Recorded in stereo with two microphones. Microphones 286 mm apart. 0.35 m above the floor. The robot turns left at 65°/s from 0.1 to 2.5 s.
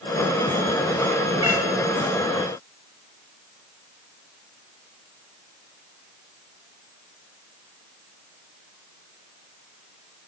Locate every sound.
1.4 s a cat meowing: 15° right (ahead or behind), 4.5 m; by 1.7 s centre (ahead or behind), 4.5 m